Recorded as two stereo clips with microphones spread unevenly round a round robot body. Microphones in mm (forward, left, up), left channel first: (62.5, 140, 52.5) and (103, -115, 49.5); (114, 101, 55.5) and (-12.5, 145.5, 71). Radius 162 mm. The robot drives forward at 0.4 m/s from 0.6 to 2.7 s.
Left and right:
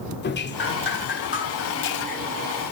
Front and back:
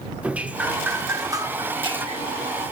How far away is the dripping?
About 1.2 m.